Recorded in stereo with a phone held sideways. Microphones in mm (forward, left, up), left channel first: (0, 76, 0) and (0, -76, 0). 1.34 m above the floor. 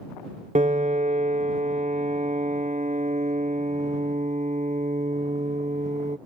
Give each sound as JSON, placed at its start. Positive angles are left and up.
{"t": 0.6, "sound": "a piano", "side_deg": -50}